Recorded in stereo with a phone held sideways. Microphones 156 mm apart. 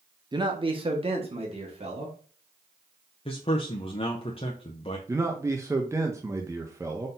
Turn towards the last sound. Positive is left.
turn(degrees=-20)  # may be behind; listen again after turning